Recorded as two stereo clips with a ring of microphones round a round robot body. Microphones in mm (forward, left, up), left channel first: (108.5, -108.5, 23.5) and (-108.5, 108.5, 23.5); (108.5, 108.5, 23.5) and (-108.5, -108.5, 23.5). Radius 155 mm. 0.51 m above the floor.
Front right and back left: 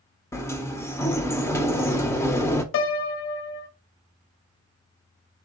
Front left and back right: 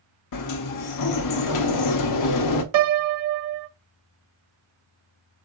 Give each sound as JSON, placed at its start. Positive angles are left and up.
{"t": 0.3, "sound": "a sliding door", "azimuth_deg": 35, "distance_m": 0.6}
{"t": 2.7, "sound": "a piano", "azimuth_deg": -100, "distance_m": 0.6}